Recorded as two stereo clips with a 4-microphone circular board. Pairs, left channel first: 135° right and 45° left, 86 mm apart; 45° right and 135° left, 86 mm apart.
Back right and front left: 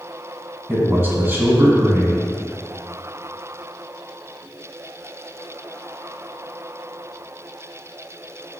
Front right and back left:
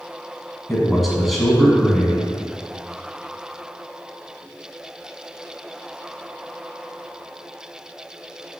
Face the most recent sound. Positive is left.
turn(degrees=45)